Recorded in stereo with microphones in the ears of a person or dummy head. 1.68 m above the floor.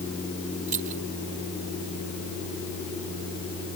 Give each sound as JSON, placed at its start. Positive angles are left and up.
{"t": 0.7, "sound": "keys jangling", "side_deg": -40}